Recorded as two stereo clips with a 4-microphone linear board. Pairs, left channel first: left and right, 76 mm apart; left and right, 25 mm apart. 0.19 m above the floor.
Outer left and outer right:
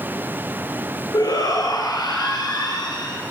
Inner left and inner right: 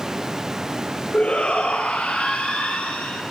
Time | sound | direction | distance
1.1 | a shout | 60° left (ahead or behind) | 4 m